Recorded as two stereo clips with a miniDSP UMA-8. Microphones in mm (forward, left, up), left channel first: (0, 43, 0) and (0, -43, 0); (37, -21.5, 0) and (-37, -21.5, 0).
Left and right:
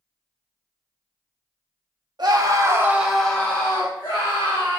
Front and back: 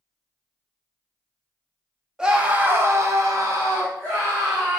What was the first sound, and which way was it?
A scream, 100° right.